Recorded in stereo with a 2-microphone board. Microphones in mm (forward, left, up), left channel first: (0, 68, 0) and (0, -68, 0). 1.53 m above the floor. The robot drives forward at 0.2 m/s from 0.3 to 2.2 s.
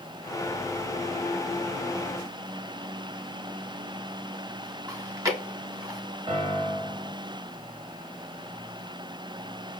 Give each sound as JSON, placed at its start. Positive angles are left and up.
{"t": 4.9, "sound": "chewing", "side_deg": -20, "distance_m": 0.8}
{"t": 6.3, "sound": "a piano", "side_deg": -40, "distance_m": 1.7}